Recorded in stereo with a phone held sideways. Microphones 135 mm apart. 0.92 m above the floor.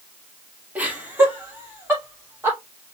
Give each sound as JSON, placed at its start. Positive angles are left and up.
{"t": 0.8, "sound": "laughter", "side_deg": -10, "distance_m": 1.9}